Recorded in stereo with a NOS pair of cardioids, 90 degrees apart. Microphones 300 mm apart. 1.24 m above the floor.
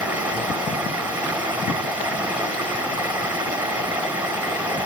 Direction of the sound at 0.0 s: 5° right.